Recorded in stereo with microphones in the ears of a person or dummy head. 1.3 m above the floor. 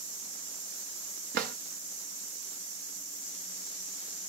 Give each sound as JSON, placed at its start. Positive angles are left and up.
{"t": 1.3, "sound": "a drawer", "side_deg": -55, "distance_m": 0.7}